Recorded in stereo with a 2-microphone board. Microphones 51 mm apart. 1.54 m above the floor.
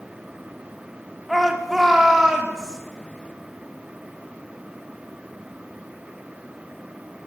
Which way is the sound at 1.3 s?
Centre (ahead or behind).